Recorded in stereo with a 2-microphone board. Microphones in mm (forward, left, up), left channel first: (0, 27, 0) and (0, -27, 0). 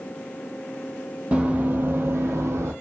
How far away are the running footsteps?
About 0.7 m.